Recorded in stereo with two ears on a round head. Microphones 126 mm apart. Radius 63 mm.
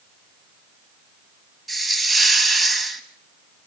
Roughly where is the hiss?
Centre.